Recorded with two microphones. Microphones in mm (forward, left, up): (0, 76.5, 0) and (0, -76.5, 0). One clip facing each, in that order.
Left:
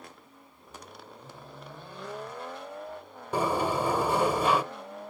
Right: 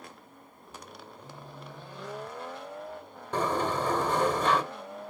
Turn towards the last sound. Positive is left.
turn(degrees=10)  # may be behind; listen again after turning